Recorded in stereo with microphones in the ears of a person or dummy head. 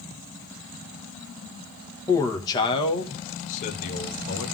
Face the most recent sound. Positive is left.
turn(degrees=55)  # may be behind; listen again after turning